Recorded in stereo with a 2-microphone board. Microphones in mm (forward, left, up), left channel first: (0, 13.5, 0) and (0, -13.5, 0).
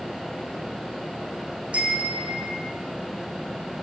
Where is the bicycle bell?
50° right (ahead or behind), 4.5 m; by 2.8 s 40° right (ahead or behind), 3 m.